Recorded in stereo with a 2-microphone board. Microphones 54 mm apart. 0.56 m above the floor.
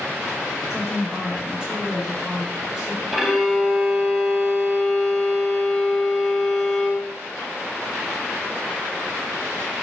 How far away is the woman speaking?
About 1.5 m.